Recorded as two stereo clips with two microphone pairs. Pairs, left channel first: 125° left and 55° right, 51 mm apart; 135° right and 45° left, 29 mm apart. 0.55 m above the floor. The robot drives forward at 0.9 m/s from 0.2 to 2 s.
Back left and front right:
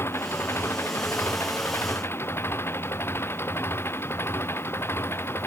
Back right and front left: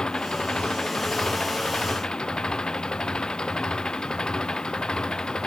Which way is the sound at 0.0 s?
165° left.